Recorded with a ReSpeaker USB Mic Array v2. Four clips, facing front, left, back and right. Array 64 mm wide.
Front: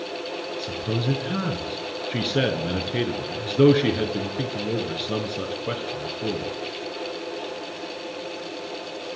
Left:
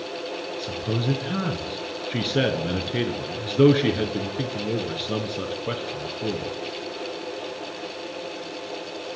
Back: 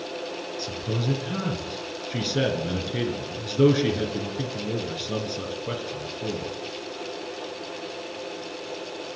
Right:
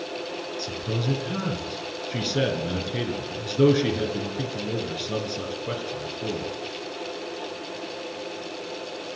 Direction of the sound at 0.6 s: 40° left.